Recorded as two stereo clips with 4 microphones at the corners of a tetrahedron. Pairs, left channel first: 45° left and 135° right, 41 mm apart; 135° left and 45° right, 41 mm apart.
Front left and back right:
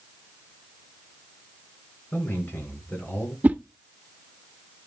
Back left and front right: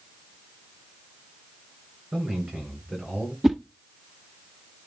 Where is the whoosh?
125° right, 0.7 m.